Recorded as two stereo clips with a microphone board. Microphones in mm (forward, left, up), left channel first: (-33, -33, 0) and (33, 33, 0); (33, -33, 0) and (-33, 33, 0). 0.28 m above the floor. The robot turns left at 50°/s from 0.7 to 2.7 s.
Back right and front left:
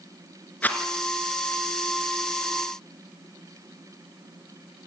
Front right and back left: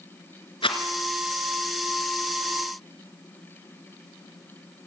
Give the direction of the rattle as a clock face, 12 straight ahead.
2 o'clock.